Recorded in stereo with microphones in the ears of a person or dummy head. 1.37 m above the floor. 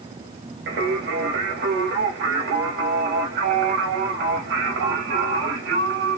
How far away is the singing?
About 1.2 m.